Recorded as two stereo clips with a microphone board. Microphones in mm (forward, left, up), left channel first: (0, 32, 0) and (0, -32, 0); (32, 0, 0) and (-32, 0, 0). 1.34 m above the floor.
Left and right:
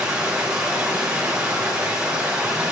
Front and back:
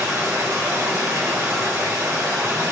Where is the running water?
165° right, 3 m.